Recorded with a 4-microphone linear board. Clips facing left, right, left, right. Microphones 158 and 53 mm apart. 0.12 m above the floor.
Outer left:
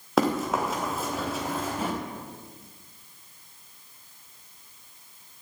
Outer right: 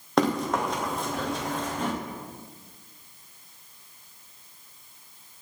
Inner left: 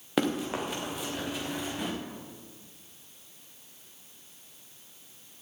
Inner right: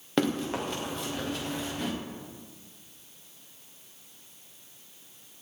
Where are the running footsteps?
5° left (ahead or behind), 3.5 m.